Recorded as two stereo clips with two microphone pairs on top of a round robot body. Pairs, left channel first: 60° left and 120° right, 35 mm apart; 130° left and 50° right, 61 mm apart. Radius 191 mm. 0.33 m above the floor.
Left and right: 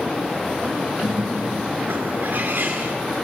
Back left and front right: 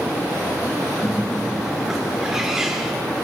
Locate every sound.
1.0 s a bird: 130° right, 3.5 m